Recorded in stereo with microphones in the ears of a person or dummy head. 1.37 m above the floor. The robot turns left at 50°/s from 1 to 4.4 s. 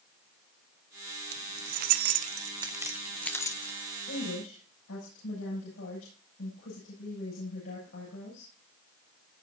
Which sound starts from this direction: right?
Keys jangling, at 1.3 s.